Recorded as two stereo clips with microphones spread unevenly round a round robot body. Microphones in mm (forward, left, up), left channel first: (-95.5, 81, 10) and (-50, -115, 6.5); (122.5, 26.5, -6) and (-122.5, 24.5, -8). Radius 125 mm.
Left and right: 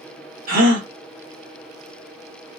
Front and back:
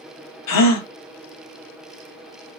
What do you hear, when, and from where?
0.5 s a gasp: 20° right, 0.9 m